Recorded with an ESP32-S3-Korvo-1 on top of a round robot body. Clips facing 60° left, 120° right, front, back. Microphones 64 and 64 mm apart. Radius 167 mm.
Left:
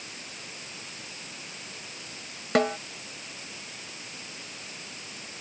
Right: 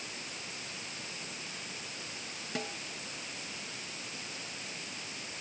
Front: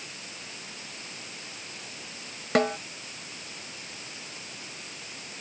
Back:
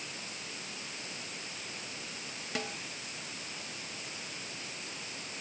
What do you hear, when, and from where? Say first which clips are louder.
2.5 s a snare drum: left 16 dB, front 15 dB; 35° left